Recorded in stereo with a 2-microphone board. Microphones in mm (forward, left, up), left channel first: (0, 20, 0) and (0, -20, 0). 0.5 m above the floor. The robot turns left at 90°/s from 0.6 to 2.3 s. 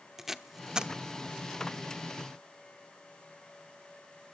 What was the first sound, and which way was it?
Tape being pulled, 10° right (ahead or behind).